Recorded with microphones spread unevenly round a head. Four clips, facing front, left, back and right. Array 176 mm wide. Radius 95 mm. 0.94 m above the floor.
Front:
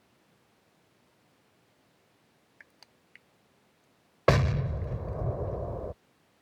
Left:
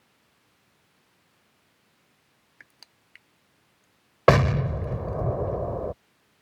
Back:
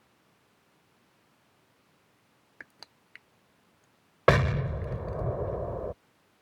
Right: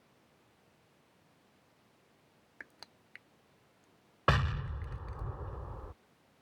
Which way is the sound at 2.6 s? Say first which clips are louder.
Right 3 dB, back 8 dB; 170° right.